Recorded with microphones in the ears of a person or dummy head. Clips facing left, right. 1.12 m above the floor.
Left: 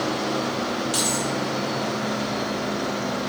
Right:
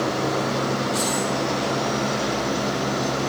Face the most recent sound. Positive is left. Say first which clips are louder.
# right 2 dB
turn(degrees=75)  # may be behind; listen again after turning